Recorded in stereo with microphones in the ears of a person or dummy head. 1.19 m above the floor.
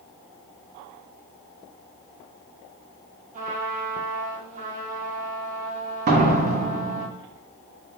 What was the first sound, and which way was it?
A trumpet, 35° right (ahead or behind).